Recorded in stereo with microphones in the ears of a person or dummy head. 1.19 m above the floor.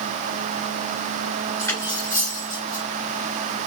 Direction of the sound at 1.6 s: 15° left (ahead or behind).